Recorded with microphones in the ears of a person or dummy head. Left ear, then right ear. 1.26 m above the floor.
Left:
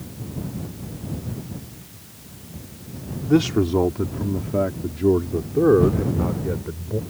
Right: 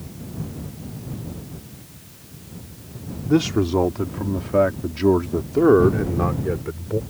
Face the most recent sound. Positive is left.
turn(degrees=-85)